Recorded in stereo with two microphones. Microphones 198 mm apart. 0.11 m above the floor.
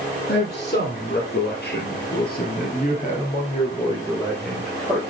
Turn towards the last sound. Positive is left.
turn(degrees=0)  # may be behind; listen again after turning